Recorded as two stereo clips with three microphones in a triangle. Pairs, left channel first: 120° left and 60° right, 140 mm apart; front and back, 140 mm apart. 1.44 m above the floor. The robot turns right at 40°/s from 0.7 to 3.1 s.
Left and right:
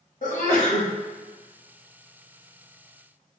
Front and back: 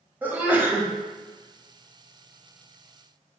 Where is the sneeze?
100° left, 1.2 m; by 0.9 s 110° left, 1.2 m.